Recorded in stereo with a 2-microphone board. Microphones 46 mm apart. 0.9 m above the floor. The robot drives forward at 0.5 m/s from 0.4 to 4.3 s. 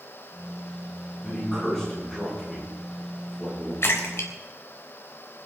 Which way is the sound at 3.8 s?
55° left (ahead or behind).